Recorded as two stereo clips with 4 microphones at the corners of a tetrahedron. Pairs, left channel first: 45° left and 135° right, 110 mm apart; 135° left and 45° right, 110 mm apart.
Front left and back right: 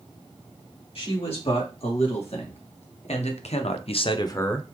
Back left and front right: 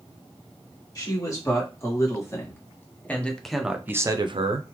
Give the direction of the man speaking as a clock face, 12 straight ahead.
9 o'clock.